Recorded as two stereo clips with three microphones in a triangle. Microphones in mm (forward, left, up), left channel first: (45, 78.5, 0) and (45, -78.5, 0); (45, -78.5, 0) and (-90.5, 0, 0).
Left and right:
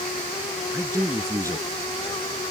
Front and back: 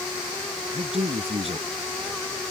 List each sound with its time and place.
0.7 s a man speaking: 160° right